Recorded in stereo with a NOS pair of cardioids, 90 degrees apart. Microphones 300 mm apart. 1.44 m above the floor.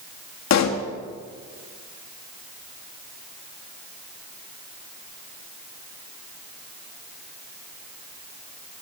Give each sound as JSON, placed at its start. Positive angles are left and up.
{"t": 0.5, "sound": "a pop", "azimuth_deg": 65, "distance_m": 1.8}